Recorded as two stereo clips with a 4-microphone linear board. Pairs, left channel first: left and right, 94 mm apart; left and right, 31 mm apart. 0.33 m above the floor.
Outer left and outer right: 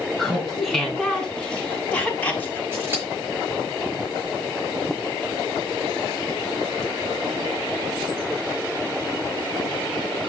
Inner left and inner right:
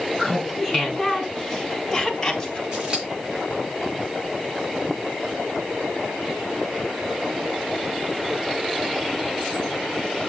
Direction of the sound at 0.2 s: Centre (ahead or behind).